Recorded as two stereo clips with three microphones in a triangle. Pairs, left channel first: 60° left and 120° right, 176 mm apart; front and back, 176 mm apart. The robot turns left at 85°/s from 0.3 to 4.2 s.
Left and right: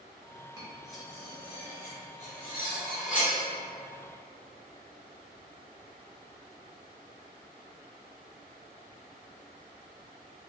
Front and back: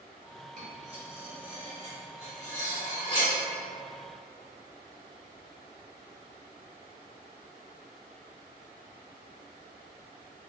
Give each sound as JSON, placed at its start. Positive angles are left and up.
{"t": 0.6, "sound": "cutlery clinking", "azimuth_deg": 180, "distance_m": 1.2}